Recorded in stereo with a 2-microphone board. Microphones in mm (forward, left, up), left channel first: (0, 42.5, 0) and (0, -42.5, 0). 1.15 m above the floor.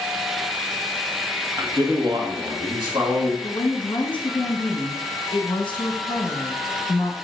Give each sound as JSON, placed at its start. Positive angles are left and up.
{"t": 1.6, "sound": "a man speaking", "side_deg": -40, "distance_m": 1.0}
{"t": 3.4, "sound": "a woman speaking", "side_deg": 70, "distance_m": 1.0}